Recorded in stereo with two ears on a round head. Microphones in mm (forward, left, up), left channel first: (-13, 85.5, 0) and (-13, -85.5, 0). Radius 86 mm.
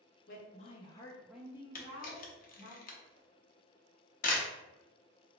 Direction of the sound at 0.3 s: 50° left (ahead or behind).